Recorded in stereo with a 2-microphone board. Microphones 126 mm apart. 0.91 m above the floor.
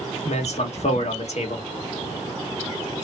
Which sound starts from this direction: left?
A man speaking, at 0.2 s.